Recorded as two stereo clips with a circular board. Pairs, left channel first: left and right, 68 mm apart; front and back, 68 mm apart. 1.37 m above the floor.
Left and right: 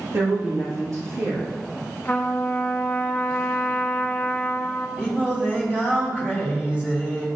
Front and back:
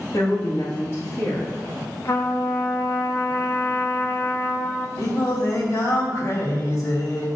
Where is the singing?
25° right, 2.5 m.